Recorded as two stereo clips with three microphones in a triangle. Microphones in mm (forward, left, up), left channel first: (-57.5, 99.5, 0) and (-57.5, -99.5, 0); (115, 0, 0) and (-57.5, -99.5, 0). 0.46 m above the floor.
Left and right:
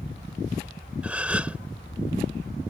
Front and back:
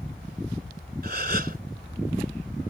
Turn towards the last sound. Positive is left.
turn(degrees=-170)